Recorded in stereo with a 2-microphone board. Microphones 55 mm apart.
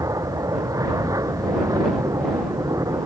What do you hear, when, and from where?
0.0 s an aircraft: 75° right (ahead or behind)